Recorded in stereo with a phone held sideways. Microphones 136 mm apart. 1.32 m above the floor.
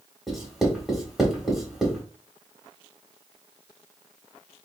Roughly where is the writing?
Centre.